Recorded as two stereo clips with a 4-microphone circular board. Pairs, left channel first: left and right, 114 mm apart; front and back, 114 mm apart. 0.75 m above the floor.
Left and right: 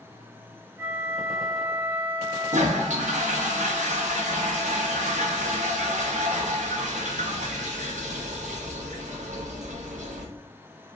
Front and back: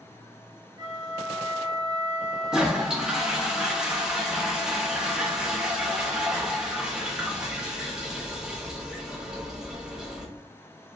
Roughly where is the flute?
Behind right.